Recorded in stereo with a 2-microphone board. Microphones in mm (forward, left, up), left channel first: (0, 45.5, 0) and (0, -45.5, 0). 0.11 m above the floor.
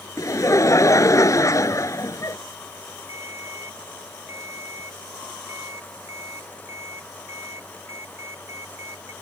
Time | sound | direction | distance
0.2 | laughter | 35° left (ahead or behind) | ?
3.1 | a ringtone | 30° right (ahead or behind) | ?